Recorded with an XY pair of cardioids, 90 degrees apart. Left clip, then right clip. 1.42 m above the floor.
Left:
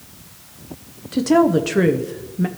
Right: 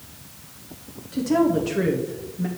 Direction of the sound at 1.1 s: 60° left.